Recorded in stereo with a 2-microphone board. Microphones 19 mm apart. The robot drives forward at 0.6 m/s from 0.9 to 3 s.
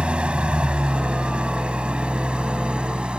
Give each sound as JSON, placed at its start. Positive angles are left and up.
{"t": 0.0, "sound": "an engine running", "side_deg": -85}